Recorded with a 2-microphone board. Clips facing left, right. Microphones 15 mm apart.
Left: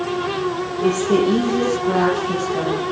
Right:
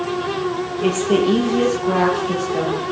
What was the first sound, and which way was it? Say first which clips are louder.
A woman speaking: even; 30° right (ahead or behind).